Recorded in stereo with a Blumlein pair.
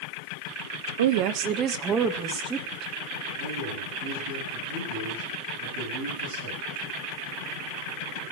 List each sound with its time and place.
1.0 s a woman speaking: 60° right, 0.9 m; by 2.9 s 10° right, 3 m
3.4 s a man speaking: 70° right, 9.5 m